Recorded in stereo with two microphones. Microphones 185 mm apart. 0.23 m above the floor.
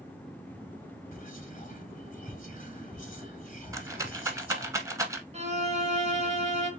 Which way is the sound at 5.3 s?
35° right (ahead or behind).